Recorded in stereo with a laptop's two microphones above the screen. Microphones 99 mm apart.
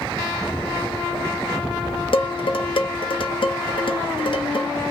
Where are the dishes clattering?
55° left (ahead or behind), 0.6 m.